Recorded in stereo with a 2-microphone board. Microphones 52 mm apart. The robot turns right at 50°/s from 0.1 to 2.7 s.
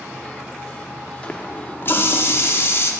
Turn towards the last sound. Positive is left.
turn(degrees=105)